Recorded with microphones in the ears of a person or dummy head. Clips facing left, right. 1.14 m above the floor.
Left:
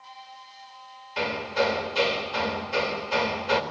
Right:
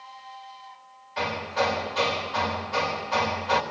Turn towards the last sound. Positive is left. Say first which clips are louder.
# left 1 dB
turn(degrees=35)  # may be behind; listen again after turning